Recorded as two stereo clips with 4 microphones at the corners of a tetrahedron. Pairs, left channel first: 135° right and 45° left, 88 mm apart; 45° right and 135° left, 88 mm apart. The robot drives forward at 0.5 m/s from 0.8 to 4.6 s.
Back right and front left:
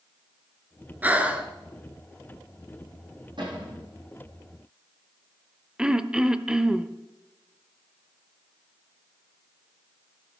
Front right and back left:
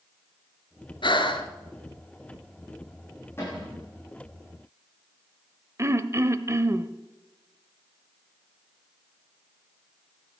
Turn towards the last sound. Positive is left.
turn(degrees=120)